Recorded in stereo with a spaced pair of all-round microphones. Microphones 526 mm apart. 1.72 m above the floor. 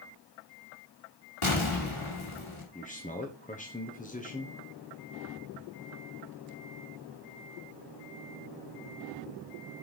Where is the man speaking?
15° left (ahead or behind), 0.9 m.